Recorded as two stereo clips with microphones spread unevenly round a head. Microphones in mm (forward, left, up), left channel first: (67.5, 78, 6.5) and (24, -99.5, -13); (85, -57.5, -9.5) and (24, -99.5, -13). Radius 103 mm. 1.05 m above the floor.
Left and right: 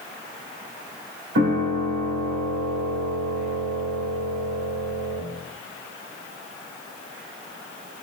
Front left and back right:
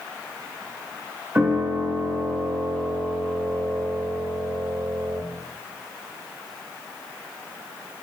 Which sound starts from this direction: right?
A piano, at 1.4 s.